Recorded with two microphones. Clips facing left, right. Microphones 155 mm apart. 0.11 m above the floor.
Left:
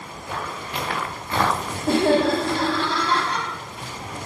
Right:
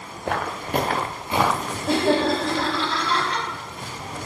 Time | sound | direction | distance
0.2 | footsteps | 70° right (ahead or behind) | 1.0 m
1.9 | laughter | 45° left (ahead or behind) | 3 m